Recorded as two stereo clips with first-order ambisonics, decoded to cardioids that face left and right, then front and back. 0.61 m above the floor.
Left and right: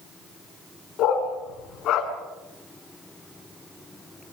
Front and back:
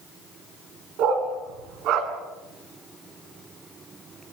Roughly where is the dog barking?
Behind left.